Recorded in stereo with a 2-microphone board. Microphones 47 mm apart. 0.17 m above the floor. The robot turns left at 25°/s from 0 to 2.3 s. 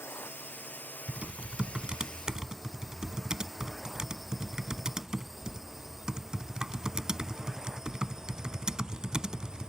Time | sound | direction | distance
0.0 | a drone | 70° left (ahead or behind) | ?
1.1 | typing on a keyboard | 30° right (ahead or behind) | ?